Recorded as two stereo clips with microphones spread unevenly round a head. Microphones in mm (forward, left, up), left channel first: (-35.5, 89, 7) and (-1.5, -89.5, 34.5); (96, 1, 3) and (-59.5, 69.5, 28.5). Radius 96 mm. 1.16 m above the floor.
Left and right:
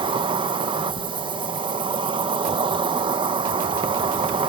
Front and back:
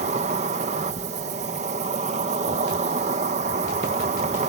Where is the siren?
I don't hear a siren.